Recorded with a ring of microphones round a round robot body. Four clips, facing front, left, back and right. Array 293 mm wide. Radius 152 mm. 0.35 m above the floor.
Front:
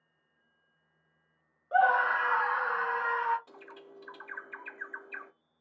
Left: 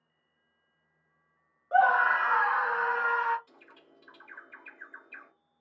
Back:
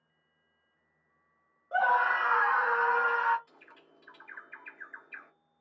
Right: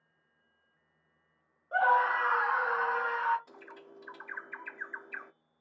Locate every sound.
1.7 s a scream: 80° left, 1.1 m; by 3.4 s 175° left, 1.2 m
3.5 s a bird: 40° right, 0.6 m